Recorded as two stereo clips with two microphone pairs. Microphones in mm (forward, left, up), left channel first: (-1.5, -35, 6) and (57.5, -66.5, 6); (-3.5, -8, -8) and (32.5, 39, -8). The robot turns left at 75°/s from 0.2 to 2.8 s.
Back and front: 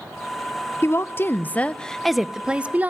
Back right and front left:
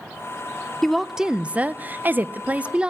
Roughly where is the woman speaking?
Behind left.